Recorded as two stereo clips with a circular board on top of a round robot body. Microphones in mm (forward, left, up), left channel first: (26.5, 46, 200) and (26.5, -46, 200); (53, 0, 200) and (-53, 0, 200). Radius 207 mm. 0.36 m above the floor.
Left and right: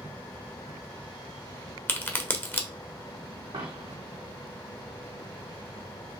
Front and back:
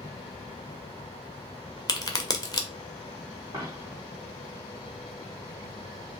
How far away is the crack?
About 1.5 m.